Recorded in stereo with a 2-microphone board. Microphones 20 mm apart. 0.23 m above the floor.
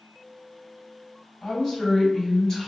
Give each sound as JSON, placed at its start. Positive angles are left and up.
{"t": 1.4, "sound": "a woman speaking", "side_deg": 25, "distance_m": 1.6}